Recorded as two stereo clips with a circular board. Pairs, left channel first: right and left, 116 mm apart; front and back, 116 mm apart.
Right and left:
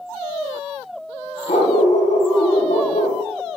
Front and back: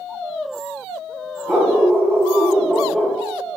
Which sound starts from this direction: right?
A dog barking, at 1.5 s.